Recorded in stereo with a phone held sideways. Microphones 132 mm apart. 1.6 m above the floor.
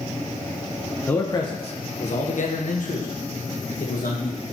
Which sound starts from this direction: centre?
A man speaking, at 1.1 s.